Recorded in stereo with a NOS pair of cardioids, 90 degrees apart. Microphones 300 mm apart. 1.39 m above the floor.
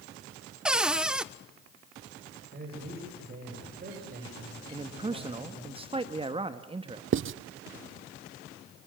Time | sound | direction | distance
0.7 | a cupboard door | 5° right | 0.8 m
2.5 | a man speaking | 30° right | 8 m
4.7 | a man speaking | 15° right | 1.6 m
7.1 | writing | 40° right | 0.7 m